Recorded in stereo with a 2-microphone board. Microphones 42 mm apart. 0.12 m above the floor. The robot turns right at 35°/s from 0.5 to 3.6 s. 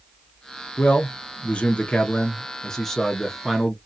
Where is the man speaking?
85° left, 1.2 m; by 3.8 s 175° right, 1.2 m.